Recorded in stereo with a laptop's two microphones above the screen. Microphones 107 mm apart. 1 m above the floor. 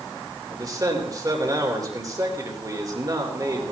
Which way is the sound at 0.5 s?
35° right (ahead or behind).